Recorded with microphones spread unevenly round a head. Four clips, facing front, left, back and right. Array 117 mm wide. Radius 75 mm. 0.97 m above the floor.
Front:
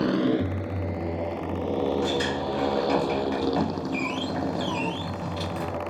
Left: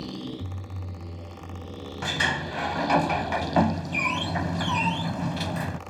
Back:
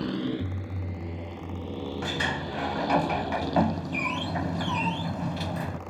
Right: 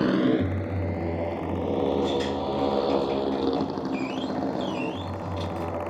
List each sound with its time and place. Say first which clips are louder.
0.0 s a motorcycle: right 14 dB, front 7 dB; 40° right
2.0 s a sliding door: right 4 dB, front 5 dB; 75° left